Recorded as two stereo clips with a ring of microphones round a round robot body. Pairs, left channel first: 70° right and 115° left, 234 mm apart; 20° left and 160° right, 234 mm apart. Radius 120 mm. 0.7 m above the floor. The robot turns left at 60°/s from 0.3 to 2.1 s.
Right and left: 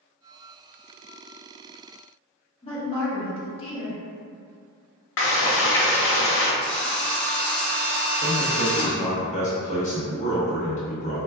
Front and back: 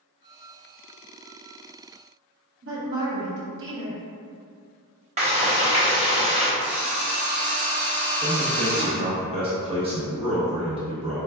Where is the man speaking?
105° right, 0.8 m.